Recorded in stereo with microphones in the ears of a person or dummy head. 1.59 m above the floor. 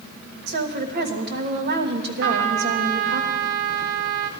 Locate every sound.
0.5 s a woman speaking: 50° right (ahead or behind), 1.3 m
2.2 s a trumpet: 65° right (ahead or behind), 0.7 m